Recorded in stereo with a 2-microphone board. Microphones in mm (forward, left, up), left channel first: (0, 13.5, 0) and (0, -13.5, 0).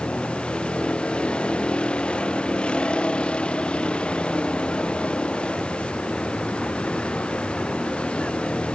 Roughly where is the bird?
I don't hear a bird.